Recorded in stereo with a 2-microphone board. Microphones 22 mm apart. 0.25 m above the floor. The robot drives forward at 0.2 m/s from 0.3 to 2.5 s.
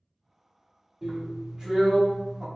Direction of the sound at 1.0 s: 25° right (ahead or behind).